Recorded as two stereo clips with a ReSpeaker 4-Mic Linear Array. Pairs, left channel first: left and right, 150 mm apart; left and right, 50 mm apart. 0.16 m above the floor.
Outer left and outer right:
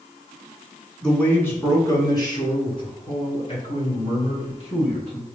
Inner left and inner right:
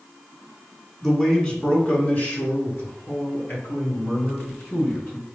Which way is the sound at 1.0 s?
5° left (ahead or behind).